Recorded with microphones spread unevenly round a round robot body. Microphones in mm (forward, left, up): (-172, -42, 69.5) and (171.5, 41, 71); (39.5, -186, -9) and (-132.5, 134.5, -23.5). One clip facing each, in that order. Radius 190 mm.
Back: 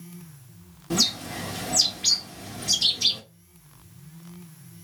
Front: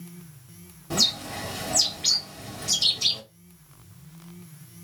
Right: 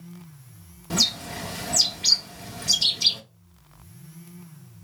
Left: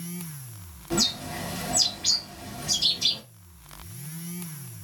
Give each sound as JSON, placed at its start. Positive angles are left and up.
{"t": 0.9, "sound": "a bird", "azimuth_deg": -90, "distance_m": 1.6}